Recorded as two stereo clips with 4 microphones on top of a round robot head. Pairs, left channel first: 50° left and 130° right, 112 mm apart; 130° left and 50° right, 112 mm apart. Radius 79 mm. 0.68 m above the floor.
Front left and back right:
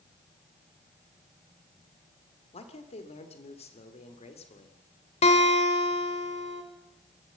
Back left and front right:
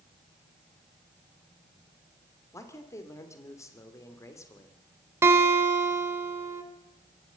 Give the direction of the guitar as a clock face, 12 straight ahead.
11 o'clock.